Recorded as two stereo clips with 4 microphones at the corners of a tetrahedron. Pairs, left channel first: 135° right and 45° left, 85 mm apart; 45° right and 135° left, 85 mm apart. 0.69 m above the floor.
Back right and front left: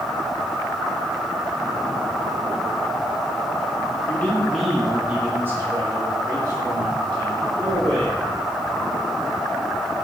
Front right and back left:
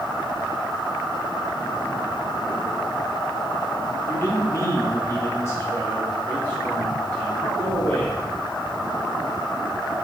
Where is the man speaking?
75° right, 1.4 m; by 8.2 s 25° left, 3 m.